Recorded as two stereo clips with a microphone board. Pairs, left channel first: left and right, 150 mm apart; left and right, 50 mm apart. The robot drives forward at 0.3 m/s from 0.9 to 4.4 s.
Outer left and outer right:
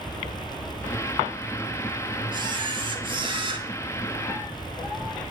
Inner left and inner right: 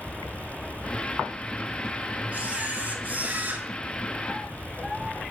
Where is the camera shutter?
35° right (ahead or behind), 2.5 m; by 3.7 s 40° right (ahead or behind), 2 m.